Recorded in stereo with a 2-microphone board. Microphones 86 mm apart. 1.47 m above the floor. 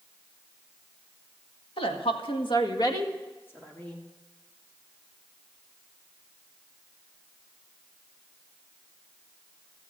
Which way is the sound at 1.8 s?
85° left.